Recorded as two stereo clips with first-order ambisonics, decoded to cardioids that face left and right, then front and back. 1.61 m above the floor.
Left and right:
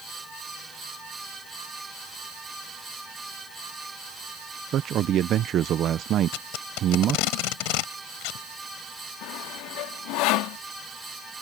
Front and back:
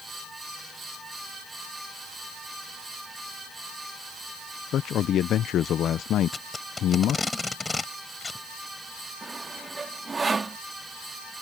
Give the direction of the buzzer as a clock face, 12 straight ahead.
No buzzer in this recording.